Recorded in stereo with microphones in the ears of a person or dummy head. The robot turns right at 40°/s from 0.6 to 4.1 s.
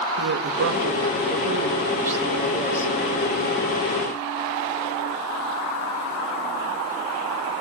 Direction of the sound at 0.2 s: 70° right.